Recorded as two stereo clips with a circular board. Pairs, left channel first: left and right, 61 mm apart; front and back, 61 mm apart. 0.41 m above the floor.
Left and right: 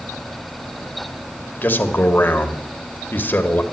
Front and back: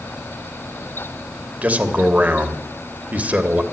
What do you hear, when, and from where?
1.6 s a man speaking: 125° left, 1.3 m